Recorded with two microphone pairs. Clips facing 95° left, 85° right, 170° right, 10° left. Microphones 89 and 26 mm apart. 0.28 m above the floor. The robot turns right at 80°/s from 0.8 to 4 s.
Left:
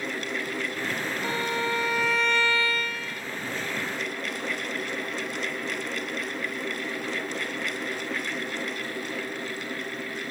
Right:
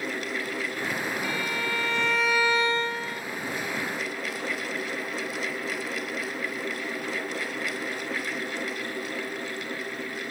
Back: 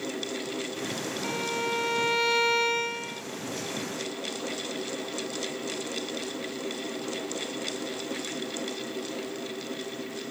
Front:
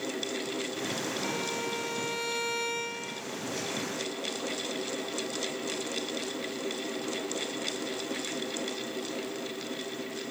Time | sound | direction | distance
1.2 | a violin | 115° left | ?